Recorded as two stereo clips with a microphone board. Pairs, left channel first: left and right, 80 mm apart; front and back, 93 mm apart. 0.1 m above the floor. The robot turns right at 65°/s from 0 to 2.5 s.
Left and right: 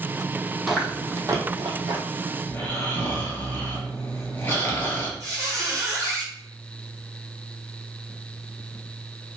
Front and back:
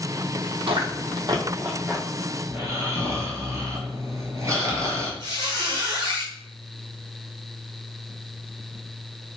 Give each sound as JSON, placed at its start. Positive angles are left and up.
{"t": 0.7, "sound": "chewing", "azimuth_deg": 180, "distance_m": 0.6}
{"t": 2.5, "sound": "snoring", "azimuth_deg": 140, "distance_m": 1.1}
{"t": 5.2, "sound": "a squeak", "azimuth_deg": -140, "distance_m": 1.5}